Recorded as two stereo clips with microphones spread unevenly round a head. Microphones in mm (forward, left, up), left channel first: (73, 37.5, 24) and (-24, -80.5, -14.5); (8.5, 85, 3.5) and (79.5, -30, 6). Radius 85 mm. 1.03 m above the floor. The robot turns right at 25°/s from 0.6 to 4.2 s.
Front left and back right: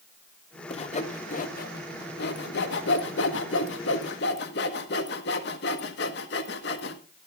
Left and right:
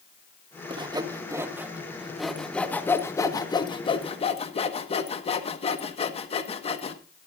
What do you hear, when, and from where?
0.7 s sawing: 5° right, 1.4 m; by 7.0 s 80° left, 1.4 m